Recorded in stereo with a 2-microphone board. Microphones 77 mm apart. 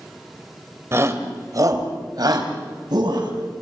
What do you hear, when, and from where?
0.9 s a shout: 35° right (ahead or behind), 2.5 m; by 3.3 s 75° right (ahead or behind), 4 m